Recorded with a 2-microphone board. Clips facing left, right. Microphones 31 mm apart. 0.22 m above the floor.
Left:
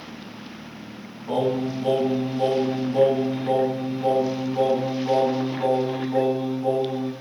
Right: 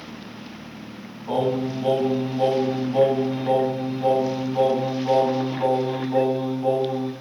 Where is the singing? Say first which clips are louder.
Even; 25° right (ahead or behind), 1.2 m.